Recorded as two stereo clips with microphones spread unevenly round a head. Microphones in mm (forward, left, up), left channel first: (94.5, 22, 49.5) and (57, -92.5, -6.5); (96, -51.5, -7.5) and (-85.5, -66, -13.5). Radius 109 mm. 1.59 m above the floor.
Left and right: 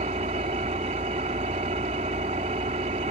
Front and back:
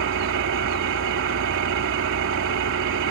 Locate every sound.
0.0 s an engine running: 175° right